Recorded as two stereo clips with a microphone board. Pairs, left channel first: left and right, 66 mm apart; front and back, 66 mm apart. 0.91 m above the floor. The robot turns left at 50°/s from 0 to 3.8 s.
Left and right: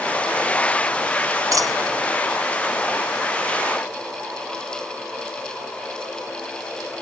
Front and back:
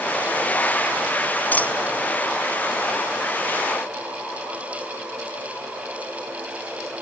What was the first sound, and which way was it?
A dropped coin, 60° right.